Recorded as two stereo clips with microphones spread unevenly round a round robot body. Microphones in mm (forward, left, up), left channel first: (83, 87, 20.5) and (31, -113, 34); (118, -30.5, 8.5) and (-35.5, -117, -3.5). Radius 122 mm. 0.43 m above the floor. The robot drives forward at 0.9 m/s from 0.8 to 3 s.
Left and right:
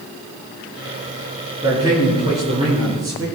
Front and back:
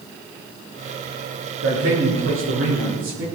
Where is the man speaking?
Straight behind, 6 m.